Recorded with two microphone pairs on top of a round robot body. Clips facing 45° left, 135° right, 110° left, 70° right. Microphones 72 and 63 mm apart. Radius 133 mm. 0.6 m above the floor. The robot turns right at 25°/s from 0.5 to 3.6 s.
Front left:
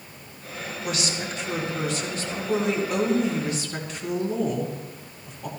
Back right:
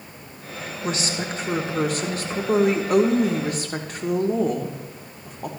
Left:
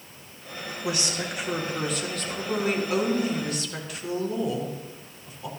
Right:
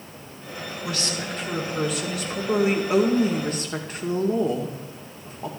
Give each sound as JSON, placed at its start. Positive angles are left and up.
{"t": 0.8, "sound": "a woman speaking", "azimuth_deg": 180, "distance_m": 1.9}